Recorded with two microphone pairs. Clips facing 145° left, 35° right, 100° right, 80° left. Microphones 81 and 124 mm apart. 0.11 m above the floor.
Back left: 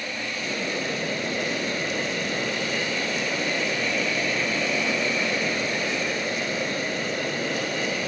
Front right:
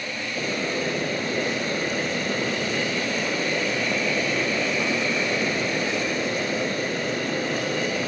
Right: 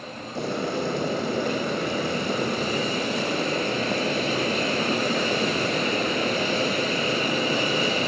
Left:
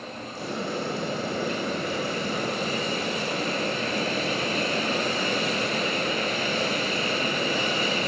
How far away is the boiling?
About 6 m.